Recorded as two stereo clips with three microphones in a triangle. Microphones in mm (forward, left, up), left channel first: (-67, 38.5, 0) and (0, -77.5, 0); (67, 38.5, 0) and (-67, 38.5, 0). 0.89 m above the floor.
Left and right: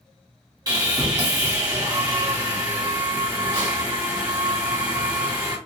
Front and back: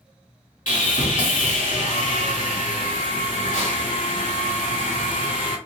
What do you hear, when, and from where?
0.7 s sawing: straight ahead, 1.9 m